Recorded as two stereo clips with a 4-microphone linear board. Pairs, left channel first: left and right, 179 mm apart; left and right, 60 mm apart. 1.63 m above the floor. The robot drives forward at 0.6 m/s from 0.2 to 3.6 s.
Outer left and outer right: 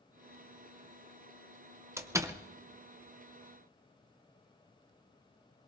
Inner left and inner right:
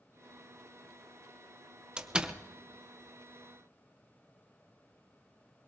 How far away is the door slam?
About 0.8 m.